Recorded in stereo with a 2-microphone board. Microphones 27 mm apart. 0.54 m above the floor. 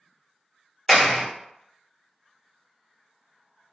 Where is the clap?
10° right (ahead or behind), 1.1 m.